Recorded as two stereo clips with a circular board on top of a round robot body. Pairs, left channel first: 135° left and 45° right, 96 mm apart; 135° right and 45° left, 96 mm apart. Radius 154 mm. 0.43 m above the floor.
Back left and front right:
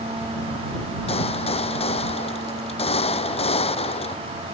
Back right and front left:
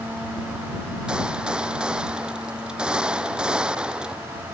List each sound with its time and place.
1.1 s a gunshot: 125° left